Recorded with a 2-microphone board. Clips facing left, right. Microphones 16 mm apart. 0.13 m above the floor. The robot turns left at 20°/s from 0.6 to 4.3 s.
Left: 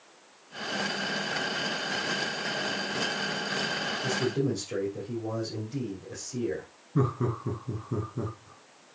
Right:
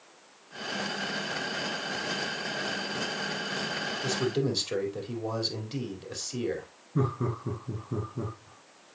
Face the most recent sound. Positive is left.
turn(degrees=15)  # may be behind; listen again after turning